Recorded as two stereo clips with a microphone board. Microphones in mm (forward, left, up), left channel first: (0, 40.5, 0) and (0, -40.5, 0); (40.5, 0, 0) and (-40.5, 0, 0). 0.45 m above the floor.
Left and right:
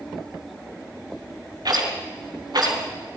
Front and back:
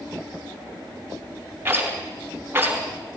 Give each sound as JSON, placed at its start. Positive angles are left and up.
{"t": 1.6, "sound": "a rattle", "azimuth_deg": -120, "distance_m": 3.5}